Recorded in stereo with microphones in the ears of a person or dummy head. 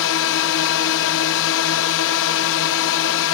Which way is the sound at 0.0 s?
65° left (ahead or behind).